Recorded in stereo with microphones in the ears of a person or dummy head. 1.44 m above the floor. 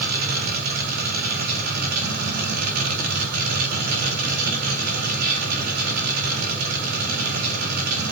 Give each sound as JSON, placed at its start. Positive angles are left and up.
{"t": 0.0, "sound": "a machine running", "side_deg": -50, "distance_m": 1.8}